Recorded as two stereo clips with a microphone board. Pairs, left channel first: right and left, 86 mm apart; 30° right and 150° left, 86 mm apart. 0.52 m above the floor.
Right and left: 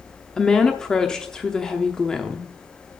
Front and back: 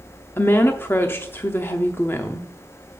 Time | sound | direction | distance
0.4 | a woman speaking | 15° right | 0.7 m